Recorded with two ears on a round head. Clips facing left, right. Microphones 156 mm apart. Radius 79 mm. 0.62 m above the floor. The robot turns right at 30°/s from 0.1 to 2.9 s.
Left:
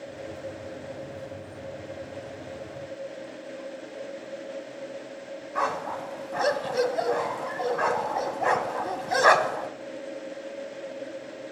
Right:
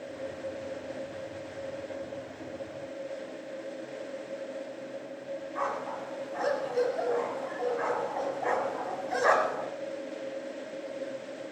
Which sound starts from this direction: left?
A dog barking, at 5.5 s.